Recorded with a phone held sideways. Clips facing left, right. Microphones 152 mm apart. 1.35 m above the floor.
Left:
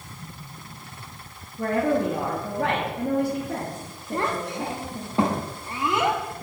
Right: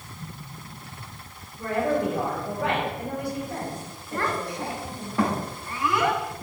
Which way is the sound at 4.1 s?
20° left (ahead or behind).